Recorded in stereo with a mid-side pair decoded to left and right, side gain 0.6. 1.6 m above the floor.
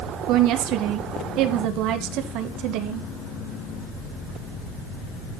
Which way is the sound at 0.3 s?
65° right.